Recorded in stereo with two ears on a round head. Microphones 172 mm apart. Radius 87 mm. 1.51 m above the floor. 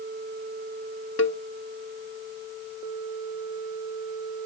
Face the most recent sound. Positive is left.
turn(degrees=70)  # may be behind; listen again after turning